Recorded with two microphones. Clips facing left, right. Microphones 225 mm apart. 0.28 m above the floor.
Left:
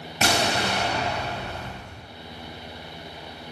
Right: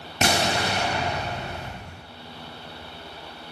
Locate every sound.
0.2 s an explosion: 25° right (ahead or behind), 1.5 m